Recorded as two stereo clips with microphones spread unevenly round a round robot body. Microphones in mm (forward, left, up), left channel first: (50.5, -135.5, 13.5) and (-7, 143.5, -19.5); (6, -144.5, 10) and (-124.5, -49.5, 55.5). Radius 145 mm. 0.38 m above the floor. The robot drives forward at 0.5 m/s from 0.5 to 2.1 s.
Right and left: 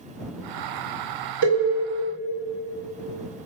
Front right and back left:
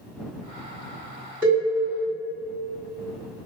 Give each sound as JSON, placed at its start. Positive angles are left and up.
{"t": 1.4, "sound": "a cowbell", "azimuth_deg": 120, "distance_m": 1.8}